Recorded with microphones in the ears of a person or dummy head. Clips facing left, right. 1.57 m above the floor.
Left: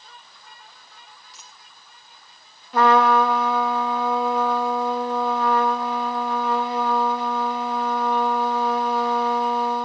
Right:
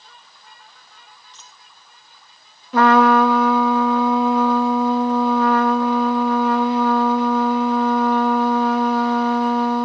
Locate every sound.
1.3 s a dropped coin: 15° left (ahead or behind), 2 m
2.7 s a trumpet: 50° right (ahead or behind), 1.3 m